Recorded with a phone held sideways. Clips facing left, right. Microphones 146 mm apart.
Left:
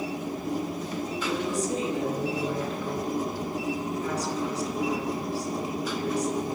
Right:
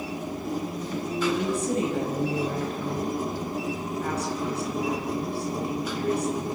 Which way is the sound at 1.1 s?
60° right (ahead or behind).